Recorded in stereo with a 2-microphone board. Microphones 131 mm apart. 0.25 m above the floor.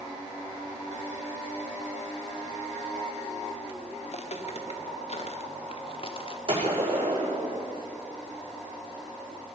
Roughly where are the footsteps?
Left.